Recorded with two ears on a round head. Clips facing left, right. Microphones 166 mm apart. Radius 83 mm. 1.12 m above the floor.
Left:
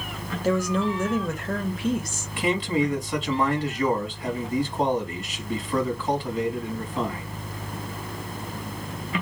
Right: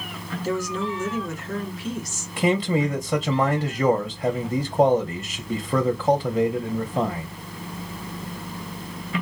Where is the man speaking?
30° right (ahead or behind), 0.7 m.